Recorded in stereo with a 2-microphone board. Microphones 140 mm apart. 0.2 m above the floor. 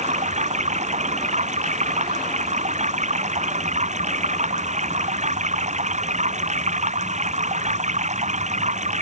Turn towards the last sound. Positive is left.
turn(degrees=-55)  # may be behind; listen again after turning